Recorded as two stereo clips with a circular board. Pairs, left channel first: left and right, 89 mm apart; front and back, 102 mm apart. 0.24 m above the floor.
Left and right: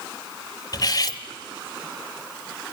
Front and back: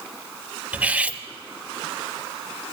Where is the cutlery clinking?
105° left, 0.8 m.